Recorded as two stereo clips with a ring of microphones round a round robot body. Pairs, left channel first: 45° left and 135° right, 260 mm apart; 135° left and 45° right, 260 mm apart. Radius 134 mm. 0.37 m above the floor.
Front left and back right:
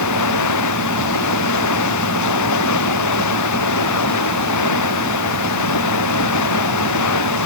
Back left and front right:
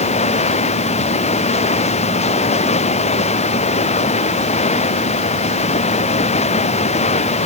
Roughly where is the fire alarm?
I don't hear a fire alarm.